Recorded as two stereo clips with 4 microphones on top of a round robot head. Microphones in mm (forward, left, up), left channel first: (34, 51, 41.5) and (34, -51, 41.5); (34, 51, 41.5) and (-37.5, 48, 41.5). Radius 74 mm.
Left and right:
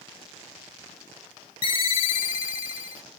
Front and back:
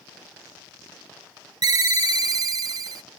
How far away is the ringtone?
About 0.7 m.